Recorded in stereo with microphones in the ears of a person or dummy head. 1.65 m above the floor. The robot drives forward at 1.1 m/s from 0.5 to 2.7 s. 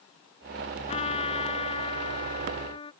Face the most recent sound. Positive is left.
turn(degrees=30)  # may be behind; listen again after turning